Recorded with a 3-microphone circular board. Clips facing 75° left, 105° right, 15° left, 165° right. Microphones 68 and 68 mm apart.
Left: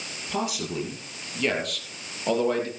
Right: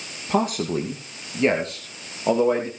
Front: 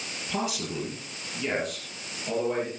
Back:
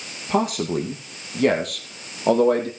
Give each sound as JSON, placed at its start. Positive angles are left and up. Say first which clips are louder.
{"t": 0.3, "sound": "a man speaking", "louder": "right 7 dB, back 10 dB", "azimuth_deg": -135, "distance_m": 2.5}